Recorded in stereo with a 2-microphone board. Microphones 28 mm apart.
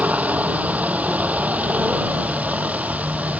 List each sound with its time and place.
0.0 s a helicopter: 60° right (ahead or behind)